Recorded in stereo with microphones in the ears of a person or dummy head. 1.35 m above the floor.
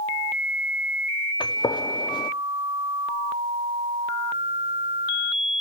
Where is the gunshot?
20° left (ahead or behind), 0.9 m.